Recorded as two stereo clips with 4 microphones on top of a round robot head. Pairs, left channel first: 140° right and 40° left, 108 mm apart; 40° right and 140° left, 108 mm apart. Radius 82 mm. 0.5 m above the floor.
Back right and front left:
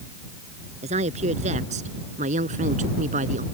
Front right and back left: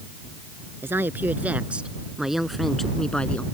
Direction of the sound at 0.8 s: 65° left.